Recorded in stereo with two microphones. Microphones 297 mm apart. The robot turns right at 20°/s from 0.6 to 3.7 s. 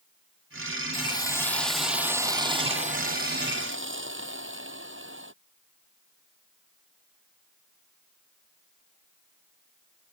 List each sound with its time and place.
0.9 s a hiss: 165° left; by 5.3 s 140° right